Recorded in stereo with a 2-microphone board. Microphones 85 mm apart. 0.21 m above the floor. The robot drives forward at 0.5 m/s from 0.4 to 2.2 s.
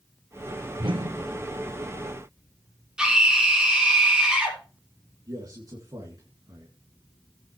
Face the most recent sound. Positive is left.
turn(degrees=-50)  # may be behind; listen again after turning